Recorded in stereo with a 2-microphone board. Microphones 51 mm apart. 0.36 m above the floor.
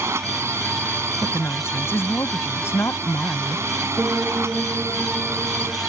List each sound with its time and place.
0.0 s a drone: 65° right (ahead or behind)
1.2 s a woman speaking: 65° left (ahead or behind)
4.0 s a piano: 15° right (ahead or behind)